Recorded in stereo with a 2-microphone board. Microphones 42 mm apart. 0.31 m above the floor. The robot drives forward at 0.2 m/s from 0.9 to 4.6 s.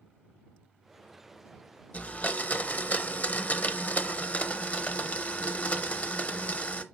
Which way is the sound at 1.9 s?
35° left (ahead or behind).